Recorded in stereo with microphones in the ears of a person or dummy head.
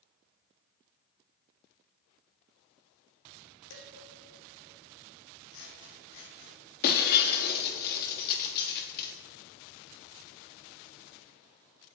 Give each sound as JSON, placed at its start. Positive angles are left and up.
{"t": 3.7, "sound": "dishes clattering", "side_deg": 65, "distance_m": 3.0}
{"t": 5.5, "sound": "scissors", "side_deg": 70, "distance_m": 2.5}
{"t": 6.8, "sound": "breaking glass", "side_deg": 55, "distance_m": 1.5}